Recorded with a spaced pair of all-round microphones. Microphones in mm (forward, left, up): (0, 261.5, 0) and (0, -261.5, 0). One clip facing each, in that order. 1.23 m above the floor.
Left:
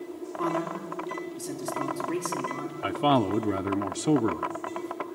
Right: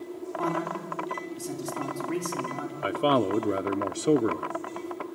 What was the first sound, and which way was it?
A man speaking, 5° right (ahead or behind).